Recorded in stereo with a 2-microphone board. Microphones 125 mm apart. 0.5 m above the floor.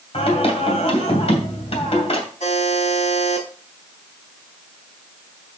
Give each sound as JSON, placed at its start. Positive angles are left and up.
{"t": 0.1, "sound": "singing", "side_deg": 55, "distance_m": 2.5}
{"t": 2.4, "sound": "a buzzer", "side_deg": 65, "distance_m": 4.5}